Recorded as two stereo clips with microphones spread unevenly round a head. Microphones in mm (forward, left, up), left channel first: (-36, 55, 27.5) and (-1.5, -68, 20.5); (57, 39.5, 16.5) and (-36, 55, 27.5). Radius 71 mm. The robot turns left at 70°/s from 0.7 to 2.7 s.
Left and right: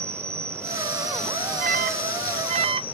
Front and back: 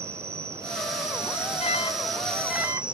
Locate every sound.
0.0 s an insect: 130° right; by 2.9 s 90° left
1.6 s an alarm: 45° right; by 2.8 s 120° right